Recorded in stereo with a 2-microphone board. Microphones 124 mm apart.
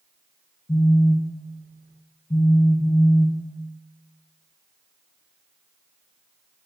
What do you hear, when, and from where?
0.7 s a phone buzzing: 85° left, 2.5 m